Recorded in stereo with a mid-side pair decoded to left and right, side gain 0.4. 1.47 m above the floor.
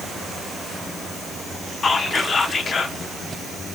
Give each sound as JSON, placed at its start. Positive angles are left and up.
{"t": 1.8, "sound": "whispering", "azimuth_deg": 35, "distance_m": 0.7}